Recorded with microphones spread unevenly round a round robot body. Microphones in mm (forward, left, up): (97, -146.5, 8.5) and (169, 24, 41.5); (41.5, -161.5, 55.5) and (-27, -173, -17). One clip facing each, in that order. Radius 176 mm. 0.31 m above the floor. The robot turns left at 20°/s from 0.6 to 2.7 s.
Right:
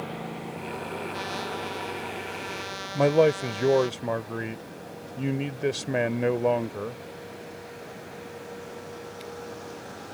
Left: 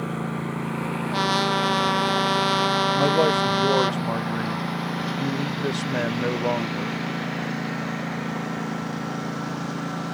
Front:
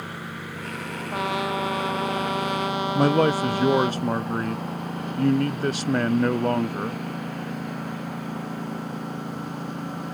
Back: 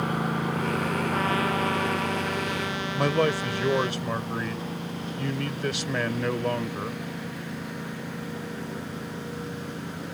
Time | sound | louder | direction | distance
0.0 | a lawn mower | left 6 dB, back 8 dB | 135° left | ?
1.1 | a trumpet | left 9 dB, front 3 dB | 85° left | ?
3.0 | a man speaking | right 2 dB, front 4 dB | 90° right | ?